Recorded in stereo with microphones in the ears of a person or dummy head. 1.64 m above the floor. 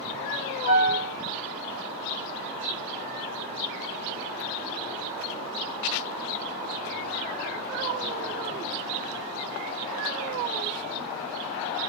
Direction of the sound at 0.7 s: 25° right (ahead or behind).